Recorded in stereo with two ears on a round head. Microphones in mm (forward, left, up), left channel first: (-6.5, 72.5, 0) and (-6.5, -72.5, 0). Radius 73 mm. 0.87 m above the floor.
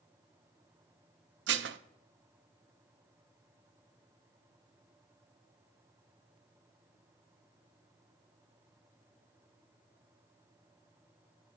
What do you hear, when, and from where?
1.5 s dishes clattering: 80° right, 0.6 m